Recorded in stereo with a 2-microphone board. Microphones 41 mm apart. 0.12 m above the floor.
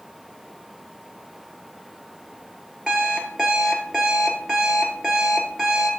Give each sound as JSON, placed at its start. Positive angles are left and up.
{"t": 2.9, "sound": "an alarm clock", "side_deg": -10, "distance_m": 1.5}